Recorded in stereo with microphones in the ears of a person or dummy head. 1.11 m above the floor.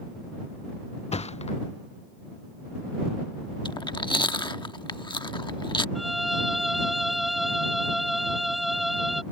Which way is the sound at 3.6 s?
20° left (ahead or behind).